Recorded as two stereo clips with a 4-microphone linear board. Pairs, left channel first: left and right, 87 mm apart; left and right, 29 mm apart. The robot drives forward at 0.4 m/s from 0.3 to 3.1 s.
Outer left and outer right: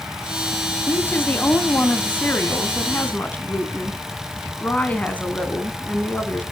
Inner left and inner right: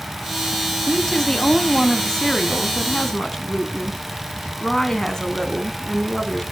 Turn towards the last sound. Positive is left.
turn(degrees=15)  # may be behind; listen again after turning